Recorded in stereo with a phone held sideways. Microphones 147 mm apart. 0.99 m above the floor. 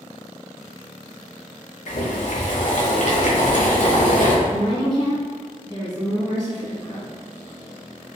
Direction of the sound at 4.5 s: 35° left (ahead or behind).